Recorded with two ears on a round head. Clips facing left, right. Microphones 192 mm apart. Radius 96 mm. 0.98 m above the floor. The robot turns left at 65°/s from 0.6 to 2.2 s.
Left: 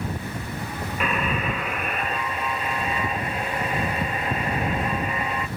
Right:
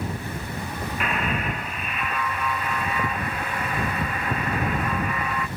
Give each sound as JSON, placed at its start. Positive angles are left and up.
{"t": 1.0, "sound": "a buzzer", "azimuth_deg": 100}